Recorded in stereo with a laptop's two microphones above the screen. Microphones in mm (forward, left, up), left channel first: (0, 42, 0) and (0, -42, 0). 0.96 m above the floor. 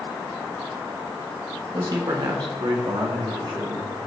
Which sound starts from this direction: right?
A man speaking, at 1.7 s.